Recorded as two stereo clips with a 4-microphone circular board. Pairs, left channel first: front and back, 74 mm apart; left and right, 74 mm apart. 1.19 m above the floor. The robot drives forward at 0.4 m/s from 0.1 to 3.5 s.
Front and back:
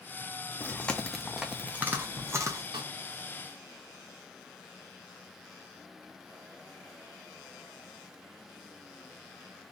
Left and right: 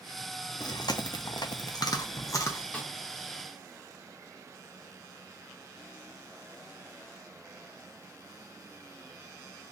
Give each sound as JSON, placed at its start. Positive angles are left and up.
{"t": 0.6, "sound": "chewing", "azimuth_deg": 65, "distance_m": 0.7}
{"t": 2.7, "sound": "a snare drum", "azimuth_deg": 160, "distance_m": 0.9}